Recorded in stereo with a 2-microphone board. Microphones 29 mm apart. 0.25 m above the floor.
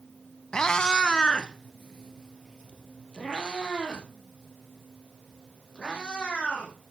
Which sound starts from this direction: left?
A cat meowing, at 0.5 s.